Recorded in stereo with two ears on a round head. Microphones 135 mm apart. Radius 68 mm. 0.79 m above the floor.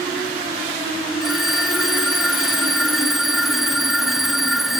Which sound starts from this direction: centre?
A phone ringing, at 1.2 s.